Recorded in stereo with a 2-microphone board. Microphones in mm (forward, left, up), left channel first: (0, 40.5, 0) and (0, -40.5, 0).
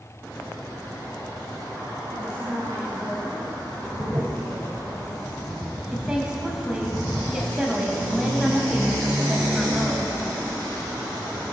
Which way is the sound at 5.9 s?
10° right (ahead or behind).